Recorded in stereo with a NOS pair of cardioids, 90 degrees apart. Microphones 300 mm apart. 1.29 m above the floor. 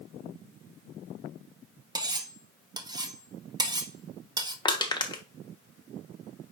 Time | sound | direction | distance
1.9 | cutlery clinking | 15° right | 1.1 m
4.7 | crushing | 15° left | 1.3 m